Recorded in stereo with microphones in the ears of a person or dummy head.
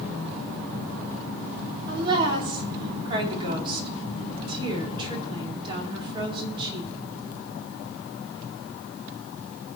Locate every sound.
1.9 s a woman speaking: 30° right (ahead or behind), 3.5 m